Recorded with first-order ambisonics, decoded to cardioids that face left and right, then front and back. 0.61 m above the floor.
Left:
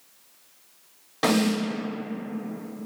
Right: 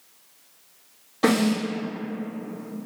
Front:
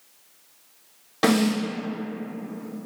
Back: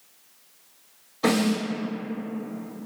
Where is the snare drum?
20° left, 1.9 m.